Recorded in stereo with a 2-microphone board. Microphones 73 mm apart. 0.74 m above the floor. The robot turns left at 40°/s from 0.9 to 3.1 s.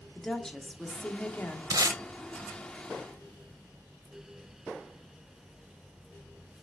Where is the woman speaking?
10° left (ahead or behind), 1.3 m; by 1.6 s 35° left (ahead or behind), 1.3 m.